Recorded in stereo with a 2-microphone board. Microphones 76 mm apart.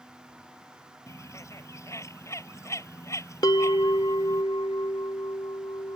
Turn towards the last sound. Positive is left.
turn(degrees=60)  # may be behind; listen again after turning